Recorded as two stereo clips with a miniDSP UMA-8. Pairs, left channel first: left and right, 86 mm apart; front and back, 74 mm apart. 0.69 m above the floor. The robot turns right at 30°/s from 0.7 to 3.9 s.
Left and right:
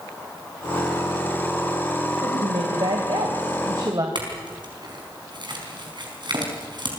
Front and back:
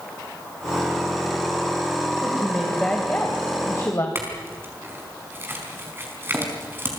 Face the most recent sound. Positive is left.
turn(degrees=-120)